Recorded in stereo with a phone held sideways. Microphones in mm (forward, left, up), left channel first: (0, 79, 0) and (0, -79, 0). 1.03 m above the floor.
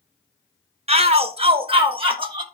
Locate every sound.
0.9 s a shout: 40° right (ahead or behind), 0.9 m; by 2.4 s 35° right (ahead or behind), 1.5 m